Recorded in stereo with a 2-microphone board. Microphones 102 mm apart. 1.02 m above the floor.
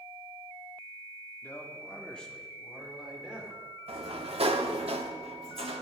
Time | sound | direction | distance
1.4 | a man speaking | 25° left (ahead or behind) | 2 m
3.9 | a sliding door | 75° right (ahead or behind) | 1.0 m